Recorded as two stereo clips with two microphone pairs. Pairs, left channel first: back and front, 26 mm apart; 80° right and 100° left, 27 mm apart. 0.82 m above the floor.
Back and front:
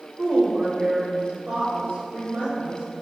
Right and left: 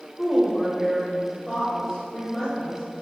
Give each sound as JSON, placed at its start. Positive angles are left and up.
{"t": 0.2, "sound": "a woman speaking", "azimuth_deg": -5, "distance_m": 3.0}